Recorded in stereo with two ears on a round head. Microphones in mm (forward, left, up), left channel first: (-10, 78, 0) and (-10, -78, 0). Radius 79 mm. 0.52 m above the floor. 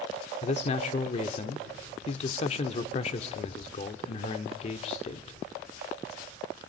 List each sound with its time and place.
0.4 s a man speaking: 40° left (ahead or behind), 1.0 m